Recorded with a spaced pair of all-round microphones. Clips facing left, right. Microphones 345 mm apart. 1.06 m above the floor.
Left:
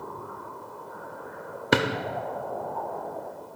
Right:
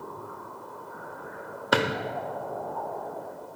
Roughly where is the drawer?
Left.